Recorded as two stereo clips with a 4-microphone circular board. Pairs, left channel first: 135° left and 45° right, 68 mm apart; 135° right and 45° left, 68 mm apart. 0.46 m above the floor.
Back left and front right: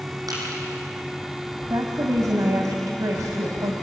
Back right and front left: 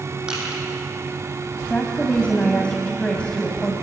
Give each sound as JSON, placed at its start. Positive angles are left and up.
{"t": 0.3, "sound": "crushing", "azimuth_deg": -30, "distance_m": 7.0}
{"t": 1.7, "sound": "a woman speaking", "azimuth_deg": -65, "distance_m": 2.5}